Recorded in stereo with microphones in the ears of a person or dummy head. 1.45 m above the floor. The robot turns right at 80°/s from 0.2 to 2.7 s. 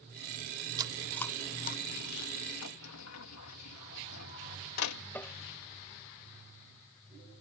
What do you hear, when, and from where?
0.8 s chewing: 30° right (ahead or behind); by 2.3 s 75° left (ahead or behind)
2.6 s a sliding door: 75° left (ahead or behind); by 5.0 s 85° left
5.1 s tapping: 5° left (ahead or behind)